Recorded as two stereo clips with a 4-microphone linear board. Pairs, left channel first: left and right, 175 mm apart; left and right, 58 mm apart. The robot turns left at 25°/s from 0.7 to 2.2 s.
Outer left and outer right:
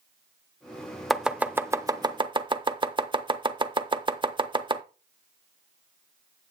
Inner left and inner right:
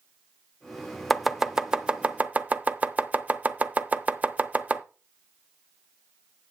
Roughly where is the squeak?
I don't hear a squeak.